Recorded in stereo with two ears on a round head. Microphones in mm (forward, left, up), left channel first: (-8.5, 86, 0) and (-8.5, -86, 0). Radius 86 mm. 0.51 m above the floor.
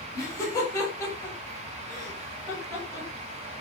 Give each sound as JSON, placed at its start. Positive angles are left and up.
{"t": 0.1, "sound": "laughter", "side_deg": 15, "distance_m": 5.5}